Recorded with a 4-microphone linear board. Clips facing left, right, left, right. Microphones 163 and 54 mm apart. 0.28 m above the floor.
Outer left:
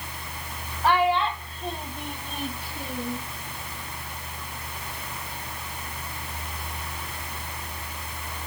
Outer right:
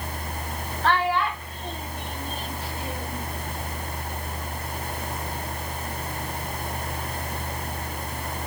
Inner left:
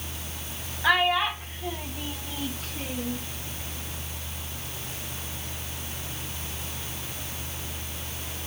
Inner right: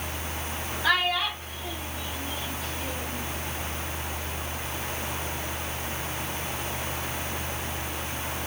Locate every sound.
0.8 s a child speaking: 10° left (ahead or behind), 1.5 m; by 3.2 s 60° left (ahead or behind), 2.5 m